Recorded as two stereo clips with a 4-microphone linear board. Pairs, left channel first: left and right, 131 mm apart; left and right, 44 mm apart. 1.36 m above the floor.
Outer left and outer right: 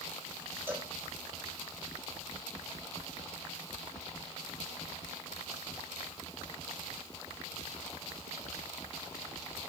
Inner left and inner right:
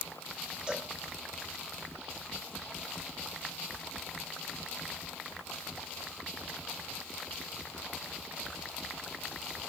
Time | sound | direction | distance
0.7 | a cowbell | 15° right (ahead or behind) | 1.2 m